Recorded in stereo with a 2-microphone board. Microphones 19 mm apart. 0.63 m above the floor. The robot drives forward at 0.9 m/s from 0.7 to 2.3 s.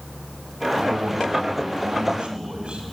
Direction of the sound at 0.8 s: 75° right (ahead or behind).